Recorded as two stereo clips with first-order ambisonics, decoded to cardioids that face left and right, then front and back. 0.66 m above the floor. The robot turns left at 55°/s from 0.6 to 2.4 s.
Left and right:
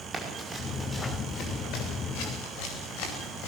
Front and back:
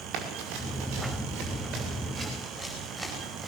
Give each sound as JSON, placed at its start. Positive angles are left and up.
{"t": 0.1, "sound": "running footsteps", "azimuth_deg": -155, "distance_m": 6.5}